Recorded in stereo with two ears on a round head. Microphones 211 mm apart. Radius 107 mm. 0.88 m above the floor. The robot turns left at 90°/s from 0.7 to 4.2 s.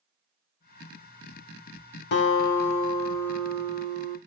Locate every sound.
2.1 s a guitar: 115° left, 0.9 m; by 4.2 s 70° right, 0.9 m